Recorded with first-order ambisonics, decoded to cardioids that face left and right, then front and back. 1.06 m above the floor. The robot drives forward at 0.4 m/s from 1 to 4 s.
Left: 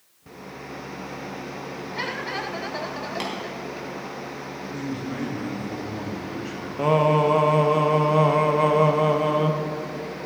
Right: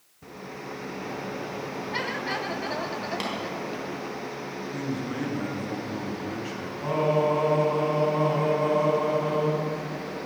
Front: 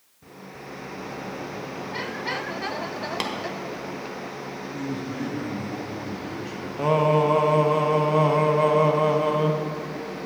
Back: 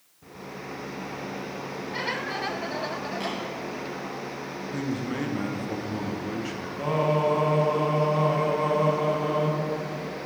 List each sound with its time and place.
3.2 s tapping: 5° right, 1.3 m
4.7 s a man speaking: 165° right, 0.9 m
6.8 s singing: 60° left, 0.7 m